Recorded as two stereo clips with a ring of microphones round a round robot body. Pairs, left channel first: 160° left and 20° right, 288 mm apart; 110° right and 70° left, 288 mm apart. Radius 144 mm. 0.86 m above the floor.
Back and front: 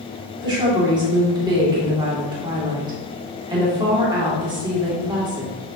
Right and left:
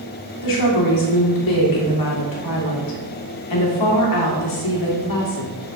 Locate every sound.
0.4 s a woman speaking: 100° right, 2 m